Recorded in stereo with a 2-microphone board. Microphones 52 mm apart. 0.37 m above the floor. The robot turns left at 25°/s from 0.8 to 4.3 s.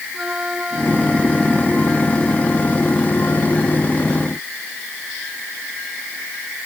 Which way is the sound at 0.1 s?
165° right.